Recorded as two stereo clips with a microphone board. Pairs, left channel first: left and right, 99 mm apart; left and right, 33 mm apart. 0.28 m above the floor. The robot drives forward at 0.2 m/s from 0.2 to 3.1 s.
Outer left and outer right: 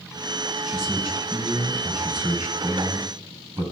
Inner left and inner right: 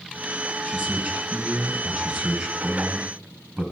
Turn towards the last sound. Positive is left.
turn(degrees=-45)  # may be behind; listen again after turning